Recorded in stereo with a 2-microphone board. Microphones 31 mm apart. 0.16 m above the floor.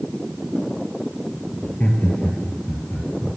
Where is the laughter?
55° left (ahead or behind), 3 m; by 3.4 s 60° left (ahead or behind), 4 m.